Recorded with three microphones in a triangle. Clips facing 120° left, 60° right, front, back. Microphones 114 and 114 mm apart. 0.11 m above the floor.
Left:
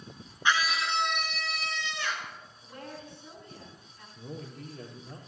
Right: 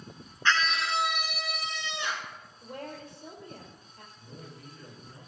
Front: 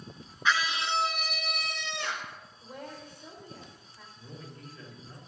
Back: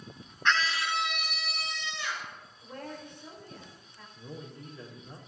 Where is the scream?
80° left, 1.2 m; by 2.3 s 5° left, 2.5 m.